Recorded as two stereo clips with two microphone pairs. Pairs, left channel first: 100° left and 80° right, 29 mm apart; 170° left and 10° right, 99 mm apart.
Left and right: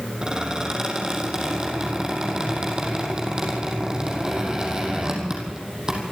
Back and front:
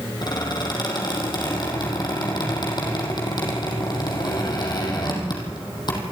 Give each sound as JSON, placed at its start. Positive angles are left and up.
{"t": 0.2, "sound": "a squeak", "azimuth_deg": -150, "distance_m": 5.0}